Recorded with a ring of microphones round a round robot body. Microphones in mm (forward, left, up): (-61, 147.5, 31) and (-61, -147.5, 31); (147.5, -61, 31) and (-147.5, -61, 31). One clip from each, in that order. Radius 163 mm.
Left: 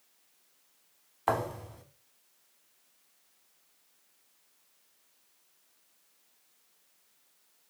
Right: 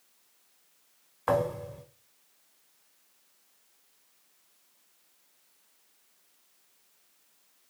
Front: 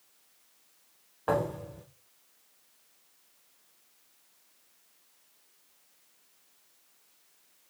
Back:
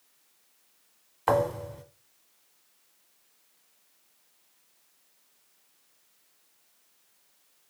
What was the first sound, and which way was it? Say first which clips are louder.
A thud: right 3 dB, back 5 dB; 160° left.